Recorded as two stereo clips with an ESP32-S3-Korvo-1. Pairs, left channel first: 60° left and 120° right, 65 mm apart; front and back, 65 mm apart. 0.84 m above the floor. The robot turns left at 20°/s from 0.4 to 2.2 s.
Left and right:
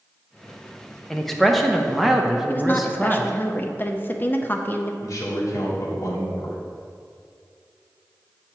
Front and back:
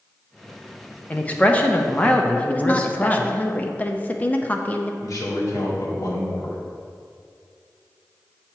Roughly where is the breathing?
No breathing in this recording.